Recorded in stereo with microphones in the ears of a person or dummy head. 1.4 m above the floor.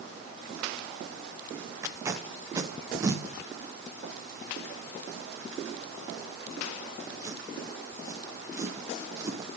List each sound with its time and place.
1.8 s tape being pulled: 15° right (ahead or behind), 1.2 m